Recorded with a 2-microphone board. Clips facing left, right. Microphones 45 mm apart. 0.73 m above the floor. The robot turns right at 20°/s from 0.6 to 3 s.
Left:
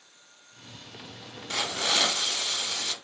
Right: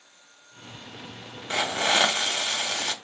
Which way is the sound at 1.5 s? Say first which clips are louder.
Right 5 dB; 25° right (ahead or behind).